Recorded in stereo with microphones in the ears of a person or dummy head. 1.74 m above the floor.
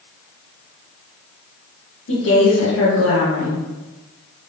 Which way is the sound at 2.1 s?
60° left (ahead or behind).